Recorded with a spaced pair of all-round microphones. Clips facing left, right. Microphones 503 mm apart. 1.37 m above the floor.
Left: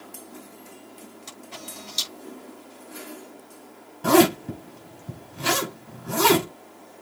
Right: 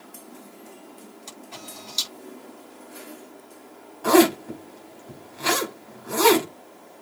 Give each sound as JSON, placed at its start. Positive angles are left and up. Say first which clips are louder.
{"t": 1.3, "sound": "a camera shutter", "louder": "even", "side_deg": 35, "distance_m": 5.5}
{"t": 4.0, "sound": "a zipper", "louder": "right 1 dB", "side_deg": 50, "distance_m": 5.5}